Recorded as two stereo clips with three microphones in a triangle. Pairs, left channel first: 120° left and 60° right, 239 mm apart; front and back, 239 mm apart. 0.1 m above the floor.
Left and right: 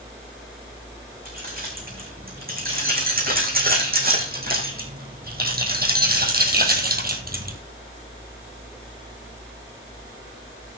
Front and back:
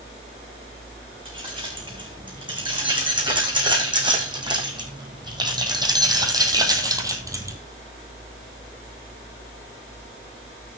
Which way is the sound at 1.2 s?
110° right.